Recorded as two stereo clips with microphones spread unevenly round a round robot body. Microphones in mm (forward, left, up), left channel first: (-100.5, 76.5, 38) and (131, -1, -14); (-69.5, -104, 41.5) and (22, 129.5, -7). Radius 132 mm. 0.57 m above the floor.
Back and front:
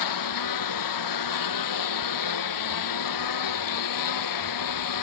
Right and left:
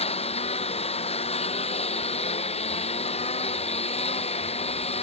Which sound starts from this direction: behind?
A lawn mower, at 0.0 s.